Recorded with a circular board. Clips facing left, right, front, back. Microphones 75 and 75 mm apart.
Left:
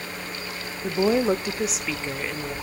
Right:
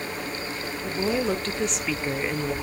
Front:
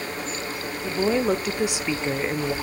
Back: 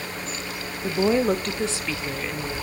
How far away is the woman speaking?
About 0.9 m.